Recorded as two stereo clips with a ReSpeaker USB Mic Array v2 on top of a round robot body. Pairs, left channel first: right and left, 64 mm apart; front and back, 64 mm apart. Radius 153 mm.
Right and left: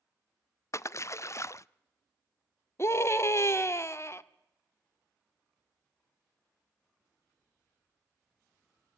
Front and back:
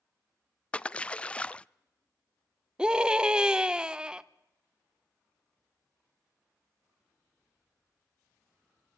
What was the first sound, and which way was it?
A splash, 65° right.